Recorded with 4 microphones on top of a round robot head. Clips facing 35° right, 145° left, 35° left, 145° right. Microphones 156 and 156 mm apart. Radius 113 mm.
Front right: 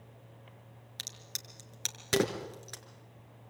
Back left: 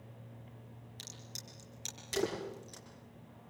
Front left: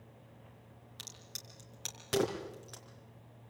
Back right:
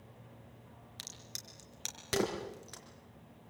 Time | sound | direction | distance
1.0 | a crack | 60° right | 4.5 m